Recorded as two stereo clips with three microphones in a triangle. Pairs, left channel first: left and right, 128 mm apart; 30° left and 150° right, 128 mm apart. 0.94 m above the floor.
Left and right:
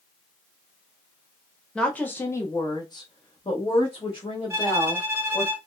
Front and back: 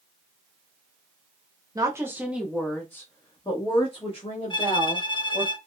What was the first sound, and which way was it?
A woman speaking, 170° left.